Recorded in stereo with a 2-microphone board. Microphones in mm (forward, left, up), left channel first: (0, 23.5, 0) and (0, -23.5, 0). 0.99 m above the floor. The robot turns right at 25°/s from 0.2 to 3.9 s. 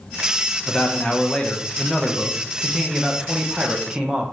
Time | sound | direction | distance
0.7 | a man speaking | 140° left | 0.6 m